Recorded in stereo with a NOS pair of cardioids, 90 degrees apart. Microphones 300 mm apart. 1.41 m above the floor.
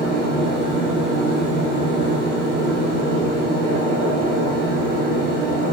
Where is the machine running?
35° right, 3.5 m.